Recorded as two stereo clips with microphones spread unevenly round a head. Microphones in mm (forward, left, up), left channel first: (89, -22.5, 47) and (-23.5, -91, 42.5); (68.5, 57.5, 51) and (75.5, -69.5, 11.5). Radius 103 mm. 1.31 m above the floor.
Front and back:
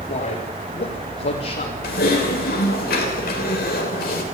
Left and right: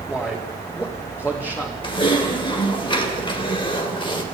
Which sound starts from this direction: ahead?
A man speaking, at 0.1 s.